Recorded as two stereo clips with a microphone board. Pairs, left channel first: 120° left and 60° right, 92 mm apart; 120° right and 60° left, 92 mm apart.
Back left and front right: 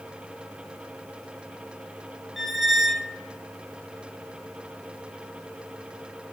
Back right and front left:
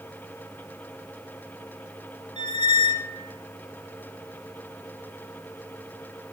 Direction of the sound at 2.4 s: 150° right.